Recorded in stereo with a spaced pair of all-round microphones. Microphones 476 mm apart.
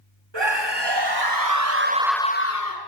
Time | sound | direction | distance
0.3 | a scream | 65° right (ahead or behind) | 2.5 m